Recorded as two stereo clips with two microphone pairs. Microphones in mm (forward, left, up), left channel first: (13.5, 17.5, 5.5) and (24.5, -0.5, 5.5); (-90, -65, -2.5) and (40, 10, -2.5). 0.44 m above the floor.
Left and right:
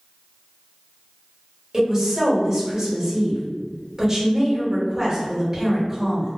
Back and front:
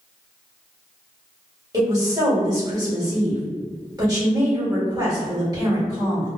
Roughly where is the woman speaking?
Ahead.